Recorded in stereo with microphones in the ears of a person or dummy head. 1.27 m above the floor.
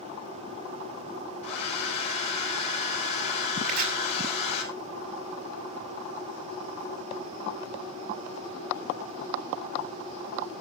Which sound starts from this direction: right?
Chopping, at 3.6 s.